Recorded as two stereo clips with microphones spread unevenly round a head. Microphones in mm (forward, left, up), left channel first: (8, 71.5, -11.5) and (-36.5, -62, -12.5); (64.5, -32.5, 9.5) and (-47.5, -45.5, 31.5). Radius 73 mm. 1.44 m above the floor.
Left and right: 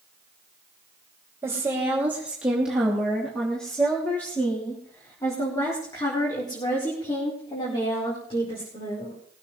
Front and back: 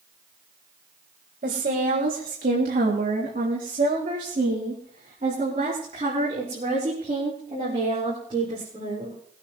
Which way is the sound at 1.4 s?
Straight behind.